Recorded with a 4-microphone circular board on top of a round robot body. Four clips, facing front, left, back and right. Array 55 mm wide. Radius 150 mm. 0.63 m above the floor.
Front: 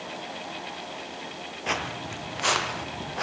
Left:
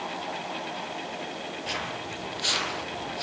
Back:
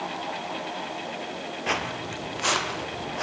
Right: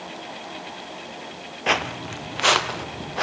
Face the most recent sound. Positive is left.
turn(degrees=-85)